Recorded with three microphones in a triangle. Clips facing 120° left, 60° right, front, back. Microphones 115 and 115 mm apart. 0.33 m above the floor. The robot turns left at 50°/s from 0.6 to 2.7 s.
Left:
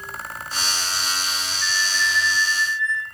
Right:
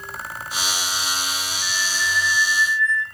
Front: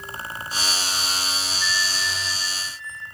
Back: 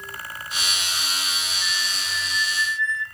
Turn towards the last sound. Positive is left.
turn(degrees=-175)